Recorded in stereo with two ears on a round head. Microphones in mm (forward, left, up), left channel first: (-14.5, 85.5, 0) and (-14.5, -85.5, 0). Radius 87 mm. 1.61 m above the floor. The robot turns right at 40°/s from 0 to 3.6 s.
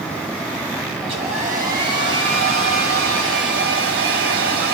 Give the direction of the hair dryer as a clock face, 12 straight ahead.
5 o'clock.